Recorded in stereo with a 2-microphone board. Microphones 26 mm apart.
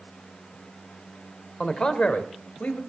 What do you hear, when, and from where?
1.6 s a man speaking: 25° left (ahead or behind), 1.6 m; by 2.8 s 60° left (ahead or behind), 2.5 m